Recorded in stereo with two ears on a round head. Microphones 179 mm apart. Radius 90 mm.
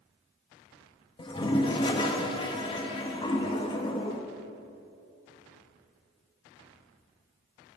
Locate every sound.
1.2 s a toilet flushing: 25° left (ahead or behind), 1.1 m